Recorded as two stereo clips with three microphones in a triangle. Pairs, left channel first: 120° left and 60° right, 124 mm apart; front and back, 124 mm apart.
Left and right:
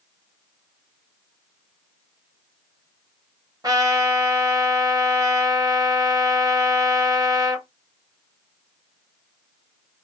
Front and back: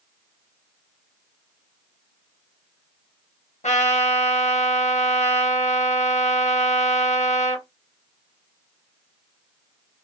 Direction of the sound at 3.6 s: Straight ahead.